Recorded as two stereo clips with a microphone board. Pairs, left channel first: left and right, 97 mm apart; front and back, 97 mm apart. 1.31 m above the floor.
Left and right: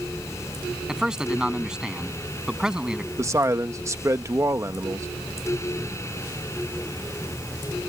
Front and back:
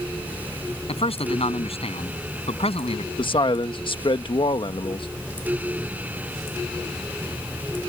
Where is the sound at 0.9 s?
5° right.